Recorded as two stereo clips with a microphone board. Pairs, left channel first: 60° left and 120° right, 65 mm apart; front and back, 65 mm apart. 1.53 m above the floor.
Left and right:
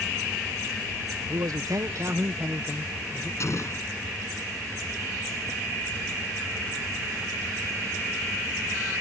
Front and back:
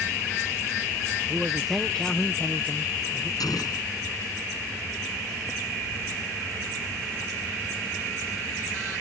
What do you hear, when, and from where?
1.3 s a man speaking: 105° right; by 3.3 s 55° right
3.4 s an explosion: 20° left